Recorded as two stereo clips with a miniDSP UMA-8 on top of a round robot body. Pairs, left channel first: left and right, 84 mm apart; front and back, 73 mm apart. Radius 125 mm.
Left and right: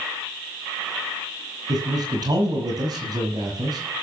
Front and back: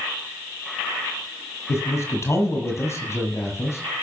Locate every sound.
1.7 s a man speaking: 50° right, 6.5 m